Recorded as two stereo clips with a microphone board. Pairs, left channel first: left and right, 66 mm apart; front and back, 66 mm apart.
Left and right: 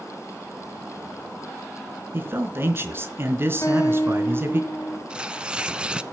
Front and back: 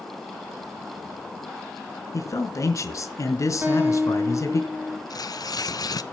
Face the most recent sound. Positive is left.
turn(degrees=-15)